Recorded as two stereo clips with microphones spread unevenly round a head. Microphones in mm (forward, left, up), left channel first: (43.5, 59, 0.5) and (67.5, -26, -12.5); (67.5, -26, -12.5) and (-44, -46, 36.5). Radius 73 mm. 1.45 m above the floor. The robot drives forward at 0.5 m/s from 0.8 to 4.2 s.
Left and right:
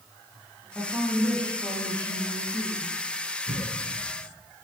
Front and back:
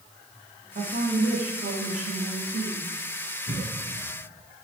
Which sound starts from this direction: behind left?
A cough, at 3.5 s.